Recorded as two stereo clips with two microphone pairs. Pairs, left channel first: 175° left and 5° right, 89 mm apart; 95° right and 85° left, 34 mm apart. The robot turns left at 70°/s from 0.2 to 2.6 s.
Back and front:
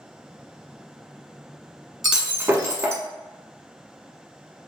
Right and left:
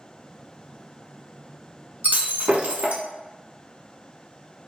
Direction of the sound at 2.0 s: 85° left.